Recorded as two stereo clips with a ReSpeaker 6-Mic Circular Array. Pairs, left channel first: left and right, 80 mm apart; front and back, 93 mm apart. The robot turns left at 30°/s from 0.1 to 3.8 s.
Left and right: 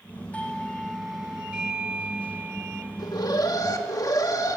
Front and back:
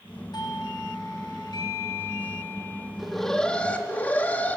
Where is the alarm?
95° left, 1.3 m; by 4.6 s 70° left, 1.3 m.